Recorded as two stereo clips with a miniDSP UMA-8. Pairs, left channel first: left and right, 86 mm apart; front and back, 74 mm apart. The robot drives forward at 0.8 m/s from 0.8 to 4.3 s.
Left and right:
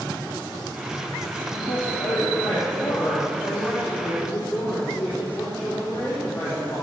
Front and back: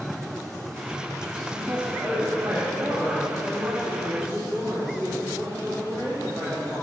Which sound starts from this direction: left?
A man speaking, at 1.4 s.